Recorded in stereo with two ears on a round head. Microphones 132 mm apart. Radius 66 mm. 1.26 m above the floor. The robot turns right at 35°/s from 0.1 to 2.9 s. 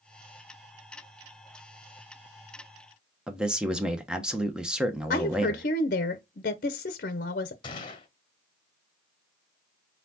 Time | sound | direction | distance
3.3 | a man speaking | 5° right (ahead or behind) | 1.0 m
5.1 | a woman speaking | 60° left (ahead or behind) | 0.7 m
7.6 | a gunshot | 35° left (ahead or behind) | 1.3 m